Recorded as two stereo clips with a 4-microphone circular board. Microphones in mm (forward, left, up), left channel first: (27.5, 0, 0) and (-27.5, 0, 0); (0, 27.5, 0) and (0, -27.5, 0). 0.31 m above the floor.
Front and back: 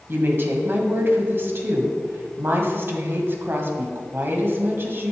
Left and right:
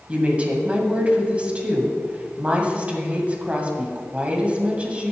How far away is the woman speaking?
About 1.8 m.